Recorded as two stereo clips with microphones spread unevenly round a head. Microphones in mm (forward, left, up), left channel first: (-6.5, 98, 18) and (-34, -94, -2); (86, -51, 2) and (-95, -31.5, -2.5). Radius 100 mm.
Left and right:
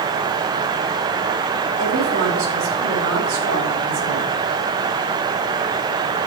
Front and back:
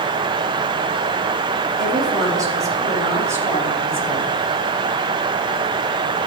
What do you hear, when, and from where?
1.8 s a woman speaking: 115° right, 8 m; by 4.3 s 105° right, 8.5 m